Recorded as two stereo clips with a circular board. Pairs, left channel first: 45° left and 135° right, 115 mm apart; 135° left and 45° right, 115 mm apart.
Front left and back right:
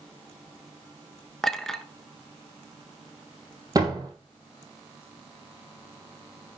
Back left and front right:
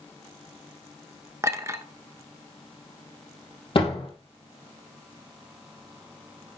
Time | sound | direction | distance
1.4 | a clink | 35° right | 0.9 m
3.8 | a door slam | 170° left | 3 m